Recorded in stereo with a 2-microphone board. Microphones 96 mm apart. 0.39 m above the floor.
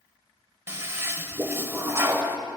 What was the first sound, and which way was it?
A toilet flushing, 25° right (ahead or behind).